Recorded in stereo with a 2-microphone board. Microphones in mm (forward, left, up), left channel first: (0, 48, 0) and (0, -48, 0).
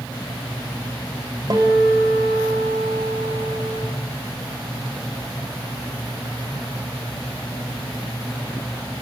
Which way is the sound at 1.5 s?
45° right (ahead or behind).